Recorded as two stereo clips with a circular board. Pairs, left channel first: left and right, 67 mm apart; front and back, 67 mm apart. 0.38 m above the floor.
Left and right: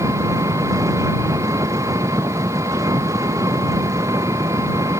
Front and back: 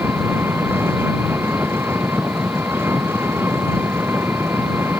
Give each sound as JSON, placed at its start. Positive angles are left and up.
{"t": 0.0, "sound": "an engine running", "azimuth_deg": -125}